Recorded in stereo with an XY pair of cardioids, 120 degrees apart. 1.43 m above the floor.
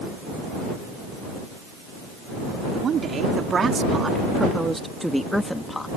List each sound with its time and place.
2.8 s a woman speaking: 45° right; by 5.9 s 20° left